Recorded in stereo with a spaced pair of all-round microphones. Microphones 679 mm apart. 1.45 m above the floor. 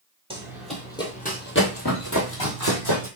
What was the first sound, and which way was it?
Running footsteps, 10° right (ahead or behind).